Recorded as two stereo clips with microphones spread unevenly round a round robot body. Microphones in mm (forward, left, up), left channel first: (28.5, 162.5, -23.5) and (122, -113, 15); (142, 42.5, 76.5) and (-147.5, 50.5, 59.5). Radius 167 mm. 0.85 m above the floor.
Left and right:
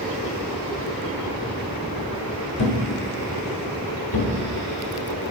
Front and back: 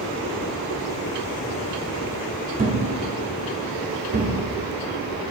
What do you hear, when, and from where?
2.6 s a thud: 115° left, 1.0 m